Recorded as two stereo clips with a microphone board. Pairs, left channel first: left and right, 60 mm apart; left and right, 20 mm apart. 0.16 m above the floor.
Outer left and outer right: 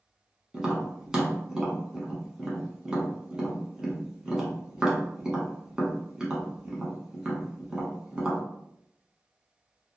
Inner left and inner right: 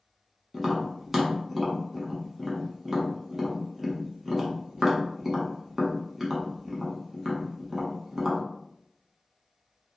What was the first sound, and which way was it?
Tapping, 15° right (ahead or behind).